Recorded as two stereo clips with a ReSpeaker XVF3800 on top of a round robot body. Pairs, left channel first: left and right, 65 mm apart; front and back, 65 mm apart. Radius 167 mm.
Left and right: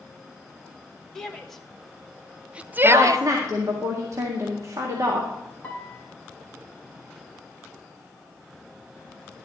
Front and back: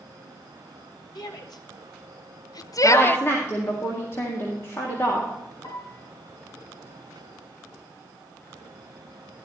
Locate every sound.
1.1 s a shout: 10° left, 2 m; by 3.2 s 75° right, 0.6 m
2.8 s a woman speaking: 50° right, 2.0 m
5.6 s a piano: 20° left, 1.5 m